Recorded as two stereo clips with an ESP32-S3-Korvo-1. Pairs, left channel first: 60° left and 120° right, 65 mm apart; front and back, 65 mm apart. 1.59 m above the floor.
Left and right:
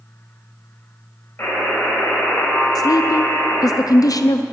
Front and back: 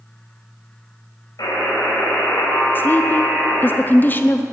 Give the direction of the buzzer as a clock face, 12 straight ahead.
12 o'clock.